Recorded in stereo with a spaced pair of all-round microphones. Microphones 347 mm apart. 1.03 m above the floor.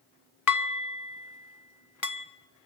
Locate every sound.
0.5 s dishes clattering: 60° left (ahead or behind), 0.7 m